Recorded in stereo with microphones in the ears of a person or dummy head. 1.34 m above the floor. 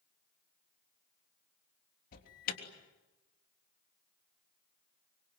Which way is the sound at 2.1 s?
50° left (ahead or behind).